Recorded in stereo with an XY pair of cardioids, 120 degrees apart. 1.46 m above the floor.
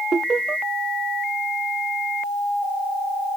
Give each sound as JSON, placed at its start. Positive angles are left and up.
{"t": 0.1, "sound": "laughter", "azimuth_deg": -35}